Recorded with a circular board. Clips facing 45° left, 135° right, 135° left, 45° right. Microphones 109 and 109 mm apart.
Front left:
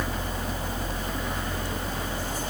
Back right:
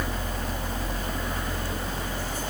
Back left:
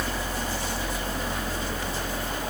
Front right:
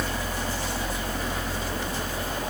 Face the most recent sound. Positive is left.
No sound to turn to.